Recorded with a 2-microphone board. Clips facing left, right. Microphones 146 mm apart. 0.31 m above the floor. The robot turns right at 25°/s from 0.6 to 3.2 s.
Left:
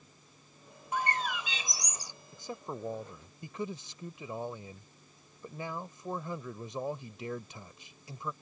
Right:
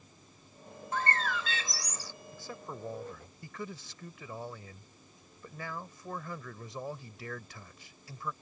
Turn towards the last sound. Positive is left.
turn(degrees=20)  # may be behind; listen again after turning